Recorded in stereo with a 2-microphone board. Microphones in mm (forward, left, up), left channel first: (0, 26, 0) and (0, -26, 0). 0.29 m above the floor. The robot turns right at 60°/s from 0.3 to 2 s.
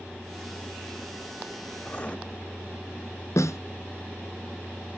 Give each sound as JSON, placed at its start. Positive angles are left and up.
{"t": 1.9, "sound": "writing", "side_deg": 20, "distance_m": 1.4}
{"t": 3.4, "sound": "a snare drum", "side_deg": 85, "distance_m": 1.9}